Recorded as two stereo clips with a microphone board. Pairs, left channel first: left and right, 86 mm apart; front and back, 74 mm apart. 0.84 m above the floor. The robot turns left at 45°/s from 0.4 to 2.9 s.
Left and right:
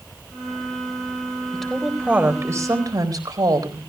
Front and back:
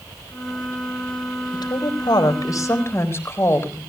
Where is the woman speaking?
10° left, 4 m; by 3.8 s 55° right, 4 m.